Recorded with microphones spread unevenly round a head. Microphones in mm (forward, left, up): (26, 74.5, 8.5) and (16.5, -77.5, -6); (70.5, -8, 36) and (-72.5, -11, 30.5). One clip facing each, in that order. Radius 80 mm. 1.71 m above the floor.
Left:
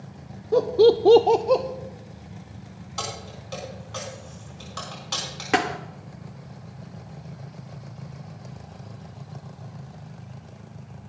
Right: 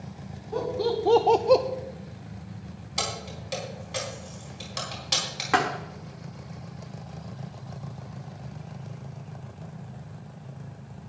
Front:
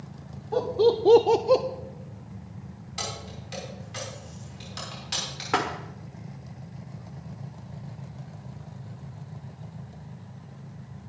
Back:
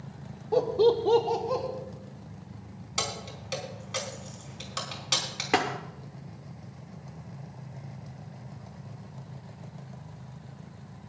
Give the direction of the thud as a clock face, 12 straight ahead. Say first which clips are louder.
Left 1 dB, back 1 dB; 8 o'clock.